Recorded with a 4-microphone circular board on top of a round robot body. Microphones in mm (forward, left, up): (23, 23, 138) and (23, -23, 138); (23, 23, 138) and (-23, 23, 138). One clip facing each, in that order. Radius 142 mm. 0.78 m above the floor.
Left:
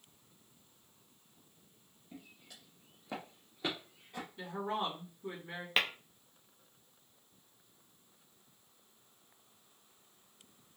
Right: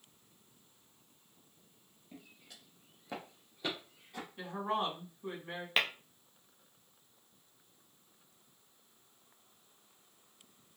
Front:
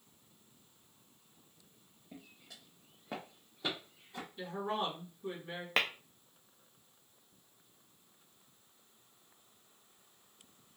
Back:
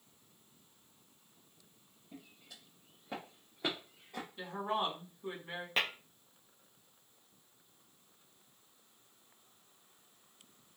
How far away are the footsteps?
About 1.2 m.